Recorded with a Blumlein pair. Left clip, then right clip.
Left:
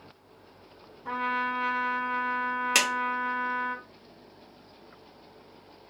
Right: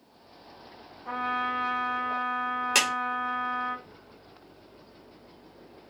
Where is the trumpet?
20° left, 1.2 m.